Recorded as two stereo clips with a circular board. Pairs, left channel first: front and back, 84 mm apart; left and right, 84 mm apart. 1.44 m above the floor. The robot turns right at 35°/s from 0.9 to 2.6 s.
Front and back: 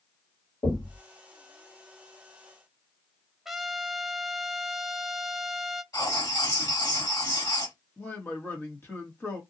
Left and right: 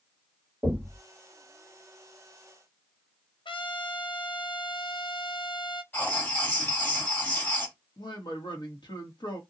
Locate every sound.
0.6 s knocking: 15° right, 2 m; by 1.0 s 10° right, 2 m
3.5 s a trumpet: 95° left, 0.5 m
5.9 s writing: 25° left, 2 m
8.0 s a man speaking: 65° left, 1.4 m